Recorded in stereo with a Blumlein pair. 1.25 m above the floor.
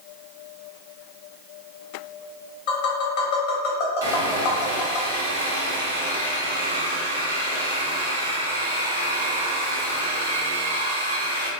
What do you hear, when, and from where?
2.7 s tapping: 50° left, 1.4 m
4.0 s sawing: 70° right, 1.1 m